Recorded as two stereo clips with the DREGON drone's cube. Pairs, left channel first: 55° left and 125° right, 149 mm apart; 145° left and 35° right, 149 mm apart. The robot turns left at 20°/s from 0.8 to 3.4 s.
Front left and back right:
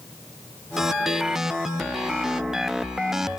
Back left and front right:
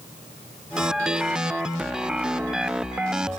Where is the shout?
I don't hear a shout.